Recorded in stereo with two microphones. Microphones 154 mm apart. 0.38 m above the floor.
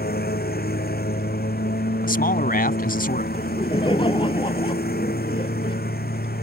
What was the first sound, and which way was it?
A lawn mower, 90° left.